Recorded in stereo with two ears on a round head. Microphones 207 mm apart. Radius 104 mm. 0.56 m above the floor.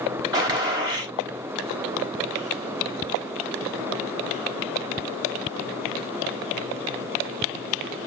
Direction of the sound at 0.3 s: 20° right (ahead or behind).